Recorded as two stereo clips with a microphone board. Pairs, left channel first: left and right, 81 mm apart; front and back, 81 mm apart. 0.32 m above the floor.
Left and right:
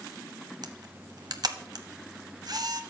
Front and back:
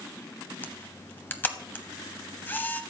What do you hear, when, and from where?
0.6 s a camera shutter: 65° right, 0.9 m